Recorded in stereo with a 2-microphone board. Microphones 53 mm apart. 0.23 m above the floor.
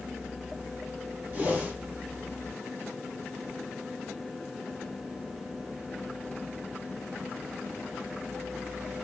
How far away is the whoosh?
About 1.2 m.